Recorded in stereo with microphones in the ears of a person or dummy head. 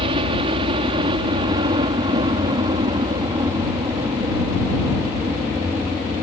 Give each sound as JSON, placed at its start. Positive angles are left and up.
{"t": 0.0, "sound": "a helicopter", "side_deg": -35}